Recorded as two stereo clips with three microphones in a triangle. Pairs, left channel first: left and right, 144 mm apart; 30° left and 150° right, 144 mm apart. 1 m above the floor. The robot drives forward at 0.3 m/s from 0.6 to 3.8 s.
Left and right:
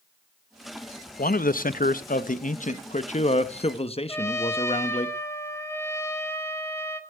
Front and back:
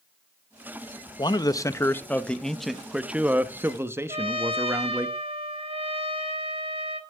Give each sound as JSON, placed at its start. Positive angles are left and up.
{"t": 1.2, "sound": "a man speaking", "azimuth_deg": 85, "distance_m": 0.7}
{"t": 4.1, "sound": "a trumpet", "azimuth_deg": 160, "distance_m": 1.4}